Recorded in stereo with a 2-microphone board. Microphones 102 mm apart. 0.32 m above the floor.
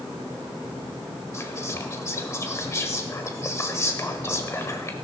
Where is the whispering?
30° left (ahead or behind), 1.2 m.